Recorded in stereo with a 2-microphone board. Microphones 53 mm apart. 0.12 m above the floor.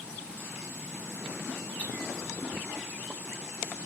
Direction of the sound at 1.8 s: 45° left (ahead or behind).